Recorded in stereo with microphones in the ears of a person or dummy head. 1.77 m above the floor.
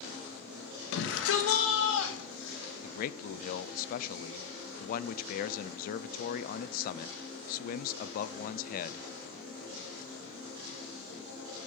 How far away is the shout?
About 1.8 m.